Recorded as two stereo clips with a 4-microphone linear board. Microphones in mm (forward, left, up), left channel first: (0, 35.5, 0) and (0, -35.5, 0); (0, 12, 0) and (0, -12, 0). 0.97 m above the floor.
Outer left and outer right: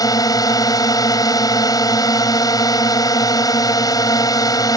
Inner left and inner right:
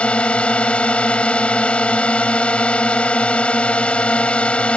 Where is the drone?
65° left (ahead or behind).